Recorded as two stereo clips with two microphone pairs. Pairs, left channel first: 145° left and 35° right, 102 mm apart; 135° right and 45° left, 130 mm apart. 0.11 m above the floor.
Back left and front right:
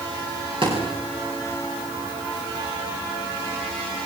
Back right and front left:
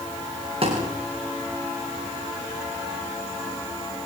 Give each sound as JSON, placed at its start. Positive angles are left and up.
{"t": 0.6, "sound": "a thud", "azimuth_deg": 0, "distance_m": 10.0}